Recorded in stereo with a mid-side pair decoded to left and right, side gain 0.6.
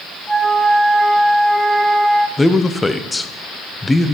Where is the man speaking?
15° left, 1.0 m.